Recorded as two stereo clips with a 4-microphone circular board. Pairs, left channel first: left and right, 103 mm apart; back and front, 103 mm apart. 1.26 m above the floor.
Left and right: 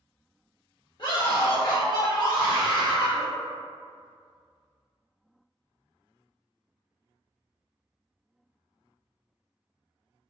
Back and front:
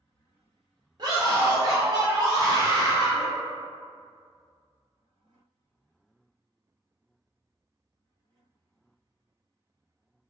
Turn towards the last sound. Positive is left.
turn(degrees=50)